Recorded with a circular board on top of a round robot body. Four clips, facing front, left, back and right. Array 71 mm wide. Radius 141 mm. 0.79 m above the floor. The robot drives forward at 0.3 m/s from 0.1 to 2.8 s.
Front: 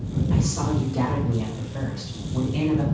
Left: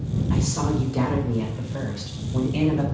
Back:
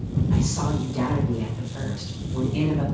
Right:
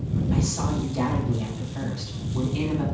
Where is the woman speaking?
90° left, 4.5 m; by 2.8 s 100° left, 4.5 m.